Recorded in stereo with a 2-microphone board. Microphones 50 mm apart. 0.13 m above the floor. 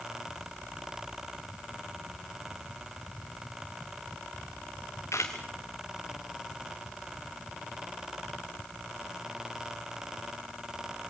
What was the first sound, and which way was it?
A camera shutter, 75° left (ahead or behind).